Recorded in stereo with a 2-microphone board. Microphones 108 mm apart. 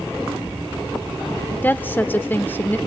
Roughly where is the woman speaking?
Centre.